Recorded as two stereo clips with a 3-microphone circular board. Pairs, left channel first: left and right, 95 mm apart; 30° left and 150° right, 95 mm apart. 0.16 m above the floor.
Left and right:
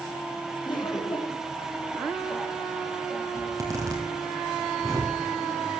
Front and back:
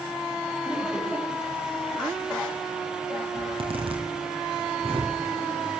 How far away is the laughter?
About 6 m.